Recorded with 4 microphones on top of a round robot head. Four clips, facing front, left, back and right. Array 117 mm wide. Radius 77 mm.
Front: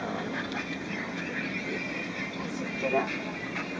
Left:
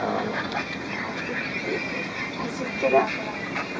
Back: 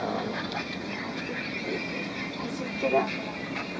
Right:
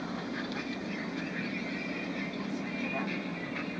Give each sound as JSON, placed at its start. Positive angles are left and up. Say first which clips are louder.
{"t": 0.0, "sound": "a vehicle", "louder": "left 10 dB, back 3 dB", "azimuth_deg": 105}